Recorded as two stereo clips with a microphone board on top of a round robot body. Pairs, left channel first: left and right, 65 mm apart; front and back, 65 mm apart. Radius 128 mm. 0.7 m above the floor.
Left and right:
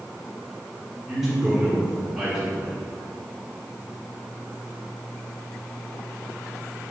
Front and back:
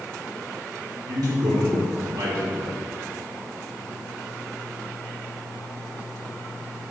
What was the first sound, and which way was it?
A man speaking, 175° right.